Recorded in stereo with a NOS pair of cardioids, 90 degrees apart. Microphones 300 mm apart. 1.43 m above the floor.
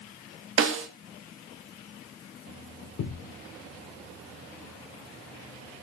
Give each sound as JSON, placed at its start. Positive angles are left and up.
{"t": 0.6, "sound": "a snare drum", "azimuth_deg": -45, "distance_m": 2.0}
{"t": 3.0, "sound": "a thud", "azimuth_deg": 70, "distance_m": 2.5}